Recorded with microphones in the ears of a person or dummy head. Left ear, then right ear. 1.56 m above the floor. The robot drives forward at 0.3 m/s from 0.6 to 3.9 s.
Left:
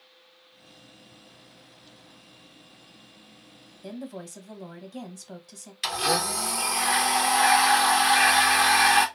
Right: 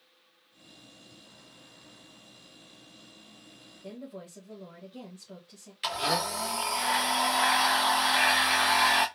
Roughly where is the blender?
Centre.